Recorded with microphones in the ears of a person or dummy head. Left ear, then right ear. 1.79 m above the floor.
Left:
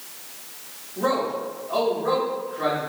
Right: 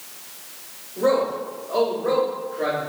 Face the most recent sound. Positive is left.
turn(degrees=20)  # may be behind; listen again after turning